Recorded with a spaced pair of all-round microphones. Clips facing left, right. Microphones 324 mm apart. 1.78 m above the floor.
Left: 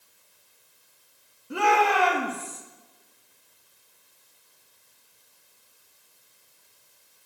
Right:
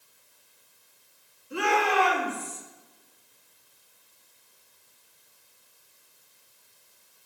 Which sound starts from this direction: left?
A shout, at 1.5 s.